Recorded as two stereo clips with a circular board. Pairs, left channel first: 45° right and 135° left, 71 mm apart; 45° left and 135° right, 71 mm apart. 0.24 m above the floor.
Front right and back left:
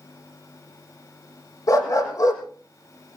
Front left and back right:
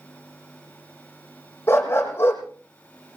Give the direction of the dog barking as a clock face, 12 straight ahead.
12 o'clock.